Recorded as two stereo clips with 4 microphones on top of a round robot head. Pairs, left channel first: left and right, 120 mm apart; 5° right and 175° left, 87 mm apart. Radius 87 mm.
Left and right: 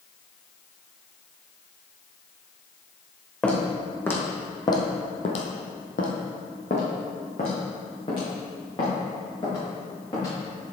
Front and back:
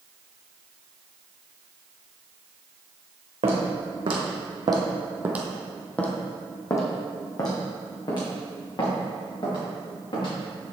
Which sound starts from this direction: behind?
Footsteps, at 3.4 s.